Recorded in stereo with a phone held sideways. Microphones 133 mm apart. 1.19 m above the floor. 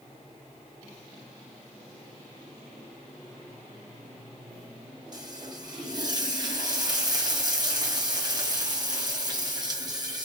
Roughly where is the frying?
Right.